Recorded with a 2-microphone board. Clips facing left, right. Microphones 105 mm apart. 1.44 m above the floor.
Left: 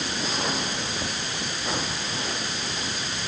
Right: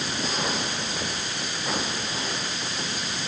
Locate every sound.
Only background noise.